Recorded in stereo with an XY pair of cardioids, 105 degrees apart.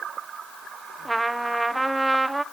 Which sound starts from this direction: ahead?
A trumpet, at 1.1 s.